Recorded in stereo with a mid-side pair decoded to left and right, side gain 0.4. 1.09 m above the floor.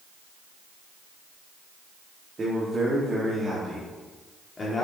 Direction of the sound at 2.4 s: 35° right.